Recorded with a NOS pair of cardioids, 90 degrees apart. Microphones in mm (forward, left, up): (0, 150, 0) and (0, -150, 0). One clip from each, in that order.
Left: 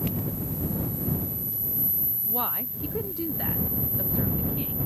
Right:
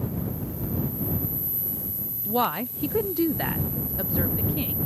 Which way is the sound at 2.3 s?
30° right.